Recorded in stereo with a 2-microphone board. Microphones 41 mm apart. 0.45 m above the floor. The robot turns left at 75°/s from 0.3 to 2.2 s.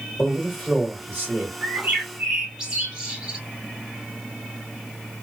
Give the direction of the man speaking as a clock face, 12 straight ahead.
12 o'clock.